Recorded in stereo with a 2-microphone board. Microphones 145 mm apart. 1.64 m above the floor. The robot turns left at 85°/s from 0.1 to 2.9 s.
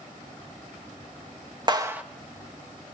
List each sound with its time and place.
1.7 s a clap: 30° right (ahead or behind), 1.2 m; by 2.0 s 5° right (ahead or behind), 1.2 m